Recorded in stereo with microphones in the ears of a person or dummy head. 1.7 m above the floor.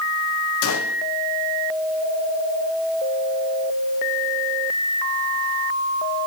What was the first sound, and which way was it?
A gunshot, 70° left (ahead or behind).